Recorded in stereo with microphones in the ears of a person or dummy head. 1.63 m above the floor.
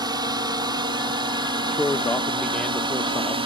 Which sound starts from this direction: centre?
A man speaking, at 1.7 s.